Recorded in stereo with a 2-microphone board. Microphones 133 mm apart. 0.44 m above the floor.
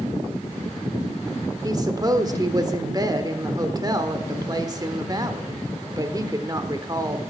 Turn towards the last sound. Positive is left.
turn(degrees=-30)  # may be behind; listen again after turning